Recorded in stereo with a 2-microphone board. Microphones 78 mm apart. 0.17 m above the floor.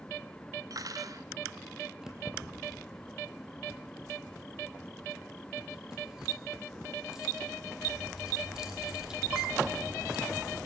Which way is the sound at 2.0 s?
10° right (ahead or behind).